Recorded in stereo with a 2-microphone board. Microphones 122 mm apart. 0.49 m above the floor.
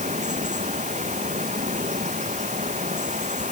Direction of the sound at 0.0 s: 80° right.